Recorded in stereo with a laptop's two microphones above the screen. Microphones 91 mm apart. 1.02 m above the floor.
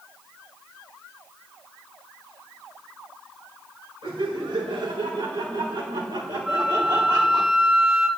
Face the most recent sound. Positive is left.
turn(degrees=-5)  # may be behind; listen again after turning